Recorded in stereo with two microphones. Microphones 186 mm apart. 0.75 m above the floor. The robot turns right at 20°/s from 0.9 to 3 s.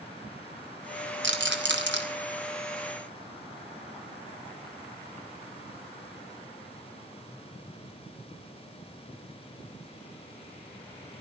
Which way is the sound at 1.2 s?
75° right (ahead or behind).